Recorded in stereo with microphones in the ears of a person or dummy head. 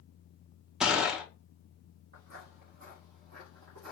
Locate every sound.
0.8 s a gunshot: centre (ahead or behind), 0.6 m
2.1 s footsteps: 35° right (ahead or behind), 1.7 m; by 3.9 s 55° right (ahead or behind), 2.5 m